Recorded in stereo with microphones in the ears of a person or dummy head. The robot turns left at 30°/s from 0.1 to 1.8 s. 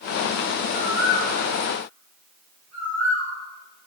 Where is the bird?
60° right (ahead or behind), 2.5 m.